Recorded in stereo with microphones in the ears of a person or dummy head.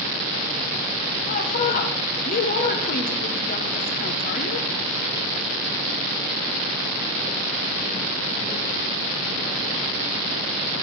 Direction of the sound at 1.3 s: 45° left (ahead or behind).